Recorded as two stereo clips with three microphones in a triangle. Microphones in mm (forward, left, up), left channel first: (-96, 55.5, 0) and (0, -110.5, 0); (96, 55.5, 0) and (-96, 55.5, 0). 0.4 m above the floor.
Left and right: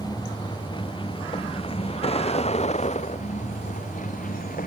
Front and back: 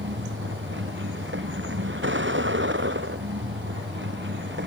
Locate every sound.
0.0 s a vehicle: 170° right; by 4.7 s 165° left